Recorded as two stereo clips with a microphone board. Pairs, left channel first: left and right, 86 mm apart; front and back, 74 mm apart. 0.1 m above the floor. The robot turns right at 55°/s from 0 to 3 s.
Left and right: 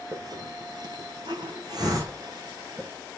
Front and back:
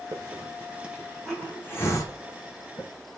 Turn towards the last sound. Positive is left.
turn(degrees=10)